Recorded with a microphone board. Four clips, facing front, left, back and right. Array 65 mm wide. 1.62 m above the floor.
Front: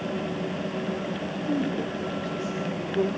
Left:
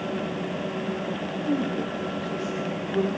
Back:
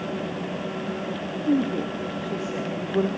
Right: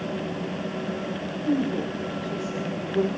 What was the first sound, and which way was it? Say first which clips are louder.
A woman speaking: right 2 dB, back 5 dB; 175° right.